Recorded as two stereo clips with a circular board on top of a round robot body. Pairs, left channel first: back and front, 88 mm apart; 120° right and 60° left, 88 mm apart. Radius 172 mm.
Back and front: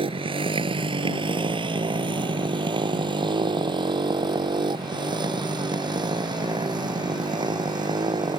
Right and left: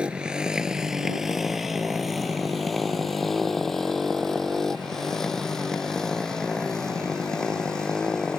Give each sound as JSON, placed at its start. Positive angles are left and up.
{"t": 0.0, "sound": "a motorcycle", "azimuth_deg": -20}